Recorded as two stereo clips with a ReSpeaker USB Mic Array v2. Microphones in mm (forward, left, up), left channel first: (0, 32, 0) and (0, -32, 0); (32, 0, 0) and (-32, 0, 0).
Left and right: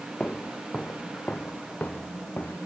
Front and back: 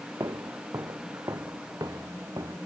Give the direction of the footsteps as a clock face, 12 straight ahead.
7 o'clock.